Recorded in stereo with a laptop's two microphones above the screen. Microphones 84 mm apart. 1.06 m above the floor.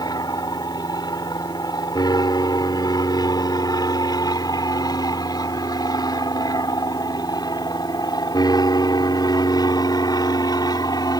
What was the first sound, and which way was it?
An aircraft, 55° left (ahead or behind).